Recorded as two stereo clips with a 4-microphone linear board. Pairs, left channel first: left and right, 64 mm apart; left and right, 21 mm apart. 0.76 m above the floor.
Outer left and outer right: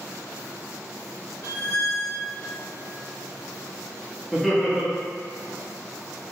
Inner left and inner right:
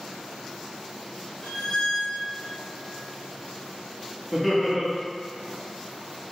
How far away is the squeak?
About 1.0 m.